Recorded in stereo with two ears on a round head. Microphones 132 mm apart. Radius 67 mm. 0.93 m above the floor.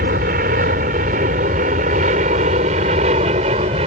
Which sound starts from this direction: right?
An aircraft, at 0.0 s.